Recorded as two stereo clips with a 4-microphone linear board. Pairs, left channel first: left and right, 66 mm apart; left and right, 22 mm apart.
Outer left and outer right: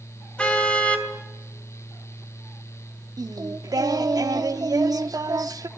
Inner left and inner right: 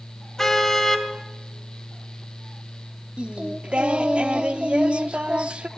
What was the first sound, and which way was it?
A car horn, 20° left (ahead or behind).